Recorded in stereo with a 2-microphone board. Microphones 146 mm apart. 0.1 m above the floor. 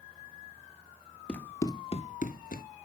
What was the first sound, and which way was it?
Running footsteps, 5° left (ahead or behind).